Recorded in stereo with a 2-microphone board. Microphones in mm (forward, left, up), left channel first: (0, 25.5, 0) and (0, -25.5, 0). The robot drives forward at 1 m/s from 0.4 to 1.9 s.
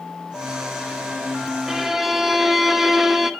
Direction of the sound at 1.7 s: 10° right (ahead or behind).